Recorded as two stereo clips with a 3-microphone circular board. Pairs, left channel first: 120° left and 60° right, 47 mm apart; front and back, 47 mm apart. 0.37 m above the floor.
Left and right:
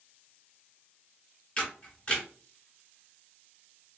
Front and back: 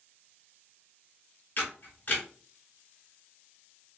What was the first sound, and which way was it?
A camera shutter, 55° left.